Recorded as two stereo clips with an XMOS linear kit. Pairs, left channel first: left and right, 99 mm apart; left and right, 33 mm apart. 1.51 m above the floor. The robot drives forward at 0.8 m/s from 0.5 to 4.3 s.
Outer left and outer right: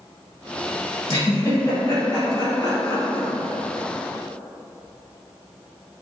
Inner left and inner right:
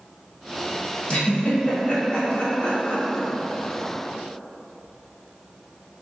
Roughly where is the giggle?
Left.